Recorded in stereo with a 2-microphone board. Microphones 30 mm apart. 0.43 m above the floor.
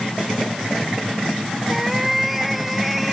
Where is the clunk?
No clunk in this recording.